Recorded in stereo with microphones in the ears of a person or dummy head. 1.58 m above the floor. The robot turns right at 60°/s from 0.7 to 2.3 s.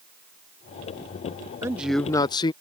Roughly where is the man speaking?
Ahead.